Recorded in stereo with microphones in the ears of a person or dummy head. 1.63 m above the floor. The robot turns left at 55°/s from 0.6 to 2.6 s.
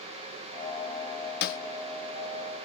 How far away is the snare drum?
About 0.8 m.